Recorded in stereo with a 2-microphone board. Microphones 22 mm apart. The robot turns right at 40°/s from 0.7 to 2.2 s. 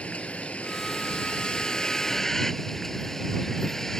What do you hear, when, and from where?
0.0 s a vehicle: 105° left; by 4.0 s 165° left